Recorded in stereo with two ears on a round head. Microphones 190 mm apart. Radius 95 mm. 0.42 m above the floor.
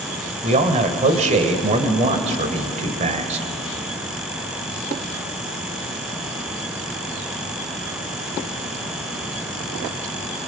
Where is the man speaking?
35° right (ahead or behind), 1.7 m.